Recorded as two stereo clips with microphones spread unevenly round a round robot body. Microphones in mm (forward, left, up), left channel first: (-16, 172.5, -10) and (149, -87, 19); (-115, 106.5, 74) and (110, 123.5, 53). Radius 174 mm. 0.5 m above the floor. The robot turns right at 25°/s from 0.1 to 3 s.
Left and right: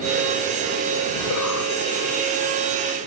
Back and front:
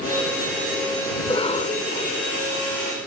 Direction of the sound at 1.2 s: 110° left.